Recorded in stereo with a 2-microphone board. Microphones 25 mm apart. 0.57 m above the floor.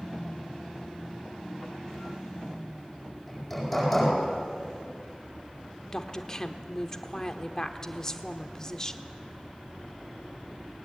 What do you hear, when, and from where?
3.3 s hammering: centre (ahead or behind), 9.5 m
5.9 s a woman speaking: 25° left (ahead or behind), 1.3 m